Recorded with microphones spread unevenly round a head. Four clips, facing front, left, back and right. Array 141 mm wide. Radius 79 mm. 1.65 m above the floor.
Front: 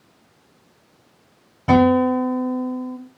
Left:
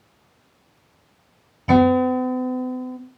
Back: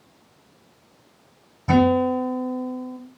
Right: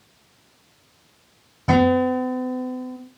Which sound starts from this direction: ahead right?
A guitar, at 1.7 s.